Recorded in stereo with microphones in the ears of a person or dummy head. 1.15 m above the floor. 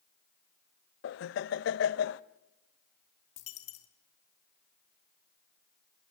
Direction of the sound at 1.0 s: 75° left (ahead or behind).